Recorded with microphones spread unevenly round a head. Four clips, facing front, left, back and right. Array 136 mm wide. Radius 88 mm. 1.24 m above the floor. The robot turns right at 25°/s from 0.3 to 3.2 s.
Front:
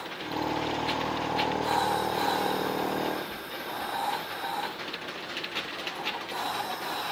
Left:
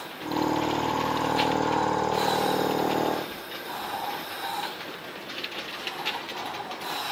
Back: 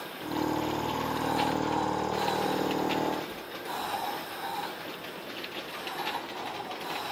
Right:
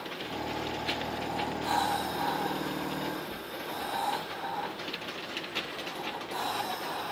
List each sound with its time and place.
Only background noise.